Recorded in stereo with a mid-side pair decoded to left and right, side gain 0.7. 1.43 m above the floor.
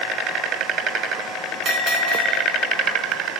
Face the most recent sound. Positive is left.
turn(degrees=-50)